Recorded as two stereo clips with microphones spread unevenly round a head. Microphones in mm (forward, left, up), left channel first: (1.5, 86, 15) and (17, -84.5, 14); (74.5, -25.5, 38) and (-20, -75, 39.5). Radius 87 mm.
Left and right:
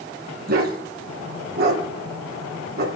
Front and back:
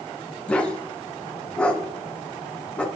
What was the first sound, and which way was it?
A dog barking, 50° right.